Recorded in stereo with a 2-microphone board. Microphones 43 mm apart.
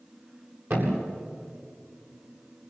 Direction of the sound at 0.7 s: 70° right (ahead or behind).